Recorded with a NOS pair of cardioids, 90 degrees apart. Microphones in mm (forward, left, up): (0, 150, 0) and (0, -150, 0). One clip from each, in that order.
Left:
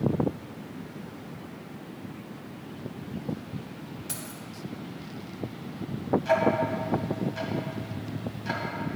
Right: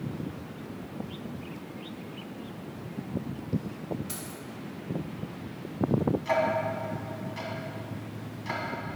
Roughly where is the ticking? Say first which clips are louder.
Left 3 dB; ahead.